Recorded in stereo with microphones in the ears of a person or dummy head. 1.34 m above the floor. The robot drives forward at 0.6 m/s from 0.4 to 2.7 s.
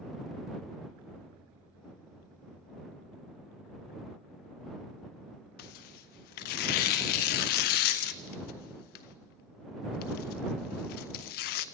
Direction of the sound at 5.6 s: 50° left (ahead or behind).